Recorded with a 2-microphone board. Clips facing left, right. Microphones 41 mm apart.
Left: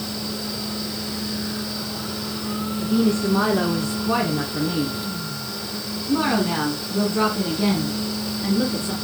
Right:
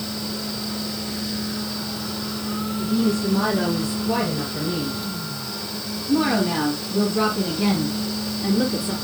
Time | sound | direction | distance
2.8 | a woman speaking | 60° left (ahead or behind) | 3 m